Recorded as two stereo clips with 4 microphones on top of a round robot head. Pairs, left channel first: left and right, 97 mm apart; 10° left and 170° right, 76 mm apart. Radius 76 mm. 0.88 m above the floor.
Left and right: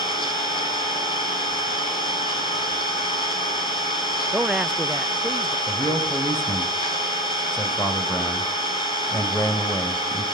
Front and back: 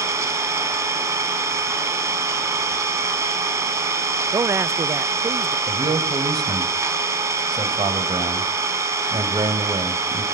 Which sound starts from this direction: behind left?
An engine running, at 0.0 s.